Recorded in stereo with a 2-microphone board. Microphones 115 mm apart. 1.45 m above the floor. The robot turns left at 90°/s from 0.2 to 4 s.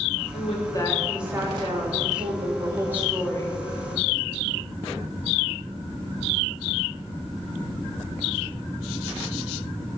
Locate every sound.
0.3 s a woman speaking: 70° left, 3.5 m; by 3.6 s 135° left, 3.5 m